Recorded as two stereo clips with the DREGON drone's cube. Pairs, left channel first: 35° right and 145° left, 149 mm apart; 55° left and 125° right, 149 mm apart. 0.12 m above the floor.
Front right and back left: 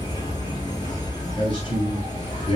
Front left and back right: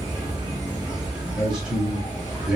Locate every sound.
0.0 s an insect: 80° right, 1.2 m
1.4 s a man speaking: 45° right, 1.4 m